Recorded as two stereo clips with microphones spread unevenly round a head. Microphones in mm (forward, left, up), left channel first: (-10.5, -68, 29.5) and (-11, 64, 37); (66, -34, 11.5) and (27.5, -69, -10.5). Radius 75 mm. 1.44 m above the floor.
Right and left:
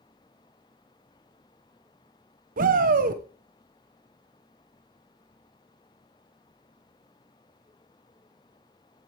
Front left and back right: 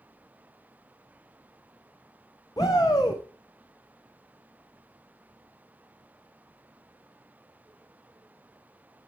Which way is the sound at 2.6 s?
110° left.